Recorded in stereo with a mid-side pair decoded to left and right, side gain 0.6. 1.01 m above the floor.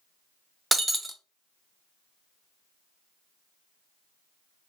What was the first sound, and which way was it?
Breaking glass, 15° right.